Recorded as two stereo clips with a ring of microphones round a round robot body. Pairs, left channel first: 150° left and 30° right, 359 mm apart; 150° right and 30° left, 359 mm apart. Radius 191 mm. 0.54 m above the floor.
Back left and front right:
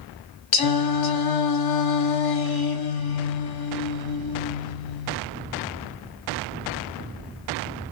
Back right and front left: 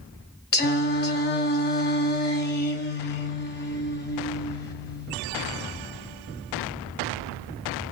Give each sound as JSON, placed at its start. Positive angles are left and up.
{"t": 0.5, "sound": "singing", "azimuth_deg": 150, "distance_m": 1.3}